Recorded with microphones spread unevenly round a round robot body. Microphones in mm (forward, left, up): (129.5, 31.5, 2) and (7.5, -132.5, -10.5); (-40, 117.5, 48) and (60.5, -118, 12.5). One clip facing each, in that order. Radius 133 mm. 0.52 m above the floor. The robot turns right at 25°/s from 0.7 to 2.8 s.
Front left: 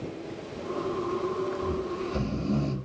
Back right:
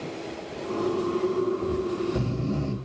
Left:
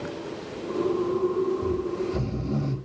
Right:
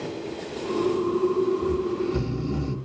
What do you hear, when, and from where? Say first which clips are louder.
1.6 s snoring: back right 4 dB, right 2 dB; 75° right, 1.9 m; by 2.8 s 50° right, 1.9 m